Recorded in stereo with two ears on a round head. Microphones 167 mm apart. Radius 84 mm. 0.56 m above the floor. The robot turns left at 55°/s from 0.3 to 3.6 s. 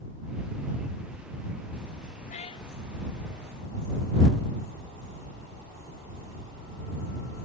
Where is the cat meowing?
40° left (ahead or behind); by 2.7 s 20° left (ahead or behind).